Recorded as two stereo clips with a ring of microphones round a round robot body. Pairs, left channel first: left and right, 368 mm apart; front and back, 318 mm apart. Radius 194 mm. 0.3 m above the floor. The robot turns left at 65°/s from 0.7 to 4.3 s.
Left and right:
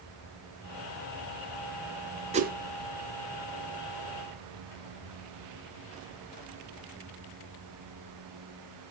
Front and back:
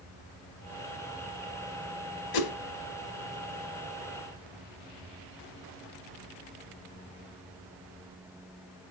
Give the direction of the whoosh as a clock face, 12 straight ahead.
1 o'clock.